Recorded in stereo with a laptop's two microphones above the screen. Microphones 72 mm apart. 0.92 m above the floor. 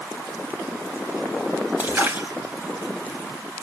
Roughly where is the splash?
Right.